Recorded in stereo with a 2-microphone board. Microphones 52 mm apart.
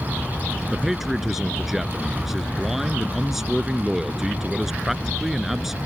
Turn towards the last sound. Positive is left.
turn(degrees=-5)  # may be behind; listen again after turning